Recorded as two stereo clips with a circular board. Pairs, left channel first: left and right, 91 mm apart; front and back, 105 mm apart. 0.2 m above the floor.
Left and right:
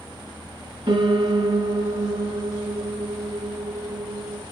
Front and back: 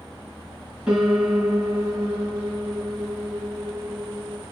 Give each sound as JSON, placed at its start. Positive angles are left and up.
{"t": 0.9, "sound": "a piano", "azimuth_deg": -100, "distance_m": 1.2}